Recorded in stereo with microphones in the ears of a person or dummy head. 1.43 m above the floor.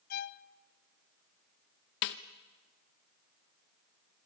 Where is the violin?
45° left (ahead or behind), 0.5 m.